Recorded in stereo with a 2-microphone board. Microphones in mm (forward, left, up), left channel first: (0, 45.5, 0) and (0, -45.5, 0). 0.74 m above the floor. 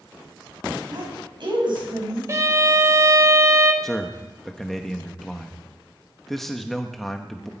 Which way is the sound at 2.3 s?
30° right (ahead or behind).